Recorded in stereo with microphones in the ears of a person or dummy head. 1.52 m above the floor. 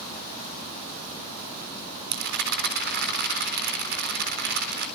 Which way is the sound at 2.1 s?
60° right (ahead or behind).